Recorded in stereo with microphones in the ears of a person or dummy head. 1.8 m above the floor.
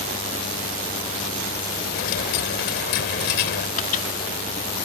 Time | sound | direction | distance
1.9 | a dropped coin | 45° left (ahead or behind) | ?
3.8 | a microwave | 45° left (ahead or behind) | ?